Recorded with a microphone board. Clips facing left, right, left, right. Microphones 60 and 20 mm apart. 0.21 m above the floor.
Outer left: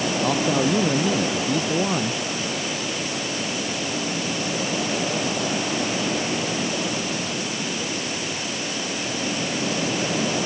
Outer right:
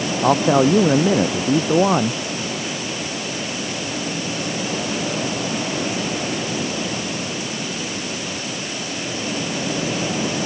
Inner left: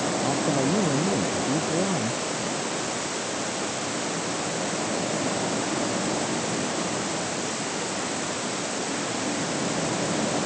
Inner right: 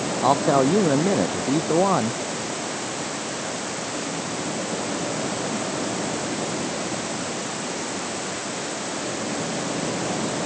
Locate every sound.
0.2 s a man speaking: 45° right (ahead or behind)